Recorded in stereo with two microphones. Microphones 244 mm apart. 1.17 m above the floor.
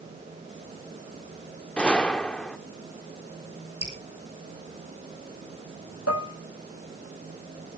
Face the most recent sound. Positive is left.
turn(degrees=75)  # may be behind; listen again after turning